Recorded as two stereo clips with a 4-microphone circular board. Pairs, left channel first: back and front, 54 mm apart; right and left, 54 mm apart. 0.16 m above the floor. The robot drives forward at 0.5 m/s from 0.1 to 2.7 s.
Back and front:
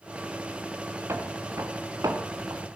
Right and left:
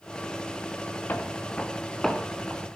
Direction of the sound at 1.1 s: 35° right.